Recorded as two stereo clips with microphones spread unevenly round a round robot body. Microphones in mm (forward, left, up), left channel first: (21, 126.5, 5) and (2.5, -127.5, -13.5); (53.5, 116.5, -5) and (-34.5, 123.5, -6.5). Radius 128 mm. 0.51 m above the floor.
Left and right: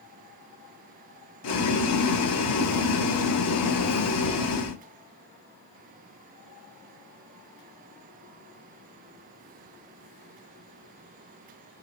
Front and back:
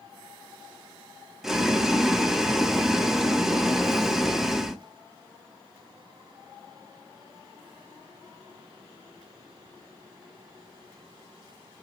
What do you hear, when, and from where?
1.4 s boiling: 90° left, 0.8 m